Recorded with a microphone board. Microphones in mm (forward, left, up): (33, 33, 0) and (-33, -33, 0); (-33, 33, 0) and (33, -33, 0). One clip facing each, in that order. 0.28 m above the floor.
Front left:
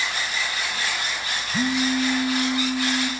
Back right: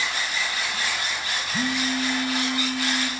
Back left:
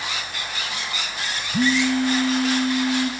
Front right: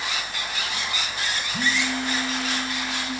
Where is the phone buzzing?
115° left, 0.8 m.